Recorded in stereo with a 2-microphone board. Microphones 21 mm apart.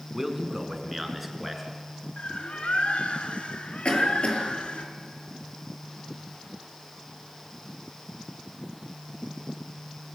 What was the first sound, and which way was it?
A man speaking, 15° right (ahead or behind).